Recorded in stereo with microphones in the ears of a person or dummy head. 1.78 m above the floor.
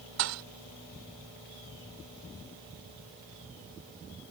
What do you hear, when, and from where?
0.2 s a thud: 70° right (ahead or behind)